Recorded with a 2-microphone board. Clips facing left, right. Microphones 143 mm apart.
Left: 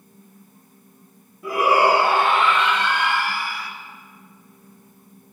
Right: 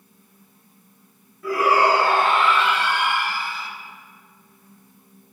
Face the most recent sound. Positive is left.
turn(degrees=-25)  # may be behind; listen again after turning